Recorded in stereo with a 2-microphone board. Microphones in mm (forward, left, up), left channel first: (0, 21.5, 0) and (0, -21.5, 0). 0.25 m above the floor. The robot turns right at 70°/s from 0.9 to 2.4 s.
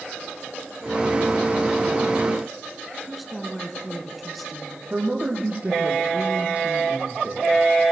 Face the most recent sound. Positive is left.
turn(degrees=-30)  # may be behind; listen again after turning